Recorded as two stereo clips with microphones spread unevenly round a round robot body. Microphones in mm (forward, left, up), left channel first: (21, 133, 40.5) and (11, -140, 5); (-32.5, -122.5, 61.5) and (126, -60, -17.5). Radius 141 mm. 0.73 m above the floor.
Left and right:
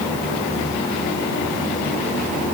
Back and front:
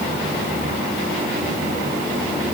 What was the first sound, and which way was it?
Only background noise.